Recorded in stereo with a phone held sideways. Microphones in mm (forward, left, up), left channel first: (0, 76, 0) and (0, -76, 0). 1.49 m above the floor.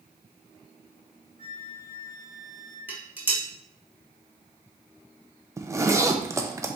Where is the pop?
No pop in this recording.